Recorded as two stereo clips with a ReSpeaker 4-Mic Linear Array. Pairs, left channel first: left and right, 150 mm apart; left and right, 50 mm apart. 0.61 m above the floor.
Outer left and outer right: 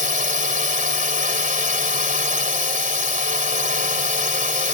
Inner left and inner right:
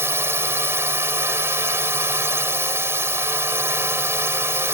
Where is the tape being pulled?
I don't hear tape being pulled.